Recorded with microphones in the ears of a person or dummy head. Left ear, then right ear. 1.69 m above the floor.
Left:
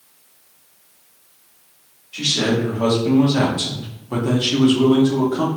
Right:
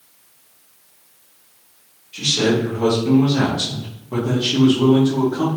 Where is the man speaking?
15° left (ahead or behind), 1.5 m; by 5.5 s 55° left (ahead or behind), 1.2 m.